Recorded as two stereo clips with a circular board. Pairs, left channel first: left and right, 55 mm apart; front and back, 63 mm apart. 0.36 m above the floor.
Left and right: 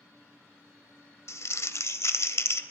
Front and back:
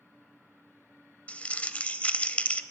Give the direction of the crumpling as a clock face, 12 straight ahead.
10 o'clock.